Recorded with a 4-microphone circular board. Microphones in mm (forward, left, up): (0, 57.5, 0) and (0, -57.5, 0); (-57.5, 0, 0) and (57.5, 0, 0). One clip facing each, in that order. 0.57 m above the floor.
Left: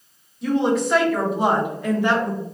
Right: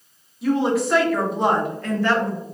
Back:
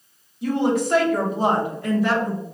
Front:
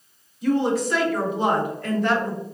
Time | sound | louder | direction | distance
0.4 | a woman speaking | even, even | 175° right | 1.4 m